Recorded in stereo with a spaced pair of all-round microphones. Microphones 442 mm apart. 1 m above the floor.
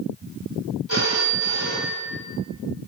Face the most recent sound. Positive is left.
turn(degrees=-80)